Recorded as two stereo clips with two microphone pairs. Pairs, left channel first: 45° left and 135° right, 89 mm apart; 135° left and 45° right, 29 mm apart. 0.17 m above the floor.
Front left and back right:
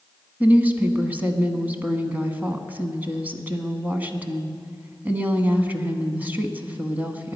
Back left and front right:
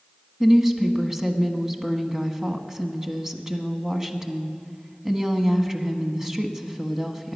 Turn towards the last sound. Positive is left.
turn(degrees=-90)